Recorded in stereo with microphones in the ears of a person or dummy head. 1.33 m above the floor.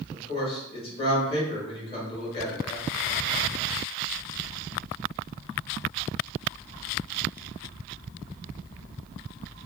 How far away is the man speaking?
About 1.2 m.